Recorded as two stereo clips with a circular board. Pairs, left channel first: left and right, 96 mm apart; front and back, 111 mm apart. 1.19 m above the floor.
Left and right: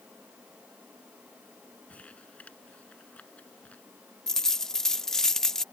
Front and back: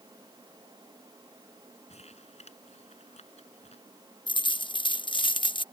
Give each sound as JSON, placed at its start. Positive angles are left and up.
{"t": 1.9, "sound": "crumpling", "azimuth_deg": 15}
{"t": 4.3, "sound": "a dropped coin", "azimuth_deg": 5}